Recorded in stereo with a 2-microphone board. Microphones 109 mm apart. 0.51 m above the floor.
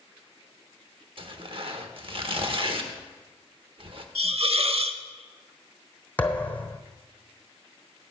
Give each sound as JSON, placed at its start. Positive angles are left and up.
{"t": 1.2, "sound": "tearing paper", "side_deg": -50, "distance_m": 0.8}
{"t": 4.2, "sound": "a hiss", "side_deg": -60, "distance_m": 0.6}
{"t": 6.2, "sound": "a thud", "side_deg": 15, "distance_m": 1.0}